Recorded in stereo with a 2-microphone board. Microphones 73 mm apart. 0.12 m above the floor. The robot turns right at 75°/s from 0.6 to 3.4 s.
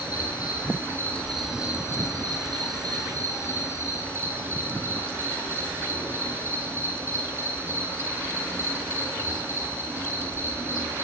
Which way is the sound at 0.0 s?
120° left.